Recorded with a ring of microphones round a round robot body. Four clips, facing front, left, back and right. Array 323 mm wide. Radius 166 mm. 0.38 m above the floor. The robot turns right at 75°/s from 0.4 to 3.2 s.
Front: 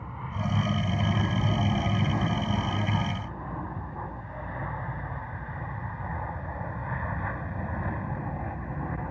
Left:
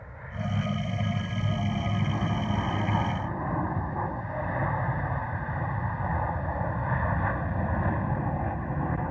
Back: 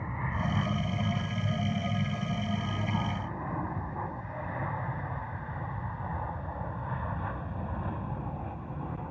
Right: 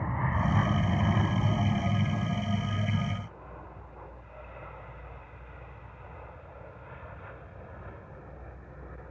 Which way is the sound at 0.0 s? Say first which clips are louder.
Right 7 dB, back 1 dB; 105° right.